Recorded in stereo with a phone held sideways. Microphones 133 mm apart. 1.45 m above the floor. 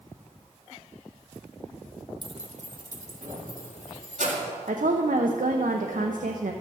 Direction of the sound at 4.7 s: 85° right.